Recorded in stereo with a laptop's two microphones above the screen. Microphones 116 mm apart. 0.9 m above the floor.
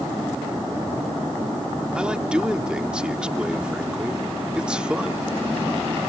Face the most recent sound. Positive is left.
turn(degrees=-10)  # may be behind; listen again after turning